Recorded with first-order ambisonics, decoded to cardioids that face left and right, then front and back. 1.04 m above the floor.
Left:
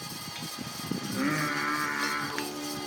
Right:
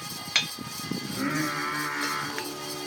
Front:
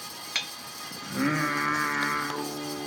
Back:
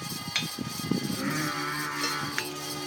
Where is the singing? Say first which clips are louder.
Even, front 9 dB; 30° left, 0.8 m.